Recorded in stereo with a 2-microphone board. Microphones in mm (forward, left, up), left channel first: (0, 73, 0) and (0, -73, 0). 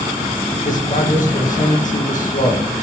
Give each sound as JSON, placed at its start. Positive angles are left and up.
{"t": 0.7, "sound": "a man speaking", "side_deg": 60, "distance_m": 1.7}